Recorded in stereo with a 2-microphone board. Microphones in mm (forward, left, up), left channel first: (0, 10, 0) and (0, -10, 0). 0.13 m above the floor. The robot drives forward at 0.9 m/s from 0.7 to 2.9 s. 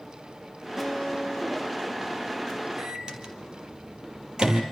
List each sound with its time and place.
0.8 s a guitar: 15° right (ahead or behind), 8.5 m
2.8 s a microwave: 40° right (ahead or behind), 3 m; by 4.6 s 45° right (ahead or behind), 3 m